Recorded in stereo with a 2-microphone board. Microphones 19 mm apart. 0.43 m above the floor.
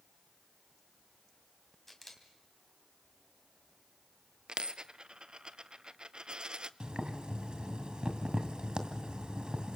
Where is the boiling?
60° right (ahead or behind), 2 m.